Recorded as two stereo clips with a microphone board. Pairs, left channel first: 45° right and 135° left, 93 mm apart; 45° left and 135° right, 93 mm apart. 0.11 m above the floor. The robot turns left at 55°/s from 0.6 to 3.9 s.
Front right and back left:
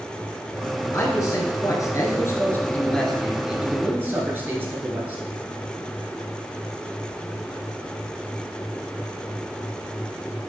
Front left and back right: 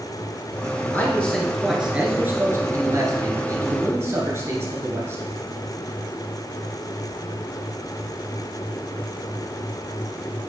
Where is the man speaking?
10° right, 1.5 m; by 5.2 s 175° right, 1.5 m.